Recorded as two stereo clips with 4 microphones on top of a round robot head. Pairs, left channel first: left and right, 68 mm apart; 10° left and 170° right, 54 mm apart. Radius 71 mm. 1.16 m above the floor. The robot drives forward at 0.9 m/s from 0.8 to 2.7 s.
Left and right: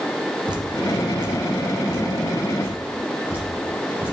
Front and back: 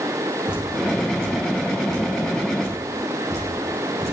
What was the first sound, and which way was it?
Dripping, 95° right.